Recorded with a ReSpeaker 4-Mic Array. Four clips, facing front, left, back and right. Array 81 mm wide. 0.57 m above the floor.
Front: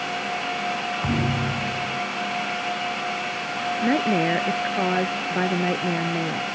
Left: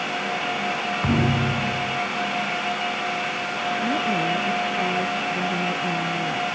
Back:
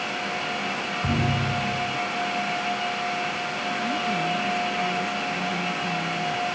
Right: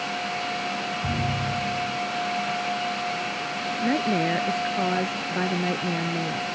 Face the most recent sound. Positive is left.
turn(degrees=-15)